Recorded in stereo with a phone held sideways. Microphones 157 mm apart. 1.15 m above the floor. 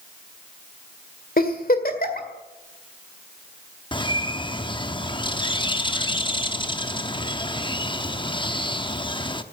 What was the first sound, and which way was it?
A giggle, 60° left (ahead or behind).